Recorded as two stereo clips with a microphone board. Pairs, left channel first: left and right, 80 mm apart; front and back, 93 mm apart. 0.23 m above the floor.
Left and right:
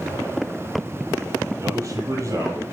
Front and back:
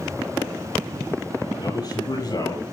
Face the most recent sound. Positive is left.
turn(degrees=-40)